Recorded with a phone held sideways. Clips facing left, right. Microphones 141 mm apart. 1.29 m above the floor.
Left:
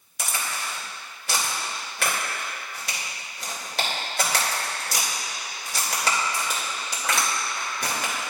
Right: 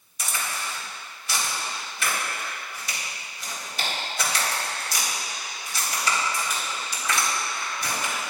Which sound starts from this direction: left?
A crack, at 0.2 s.